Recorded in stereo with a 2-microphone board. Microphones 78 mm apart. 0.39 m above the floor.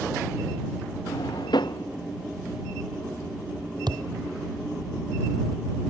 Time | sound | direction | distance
1.1 | a drawer | 75° left (ahead or behind) | ?
3.9 | a thud | 70° right (ahead or behind) | ?